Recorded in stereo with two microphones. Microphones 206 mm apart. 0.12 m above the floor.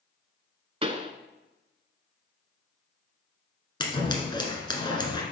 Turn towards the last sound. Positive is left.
turn(degrees=20)  # may be behind; listen again after turning